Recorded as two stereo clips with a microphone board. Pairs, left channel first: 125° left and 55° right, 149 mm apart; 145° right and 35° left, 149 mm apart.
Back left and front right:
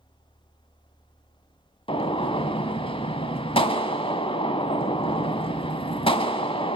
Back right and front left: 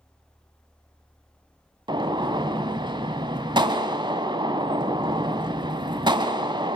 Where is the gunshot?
85° left, 1.0 m.